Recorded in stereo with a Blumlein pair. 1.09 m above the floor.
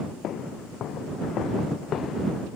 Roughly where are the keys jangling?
No keys jangling in this recording.